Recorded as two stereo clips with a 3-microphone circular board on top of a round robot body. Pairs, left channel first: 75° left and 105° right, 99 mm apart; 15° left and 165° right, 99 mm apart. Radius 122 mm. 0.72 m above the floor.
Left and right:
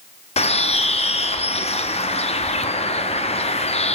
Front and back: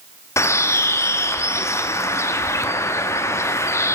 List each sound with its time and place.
0.4 s a bird: 80° left, 0.8 m